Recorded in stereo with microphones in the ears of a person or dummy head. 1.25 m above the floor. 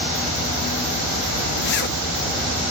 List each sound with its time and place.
1.6 s a zipper: 55° left (ahead or behind), 0.8 m